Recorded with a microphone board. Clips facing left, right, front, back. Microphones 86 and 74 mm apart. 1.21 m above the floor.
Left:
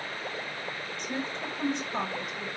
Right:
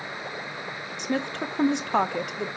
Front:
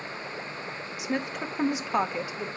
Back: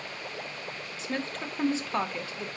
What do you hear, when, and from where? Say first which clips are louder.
1.0 s a woman speaking: right 7 dB, front 3 dB; 75° right, 0.5 m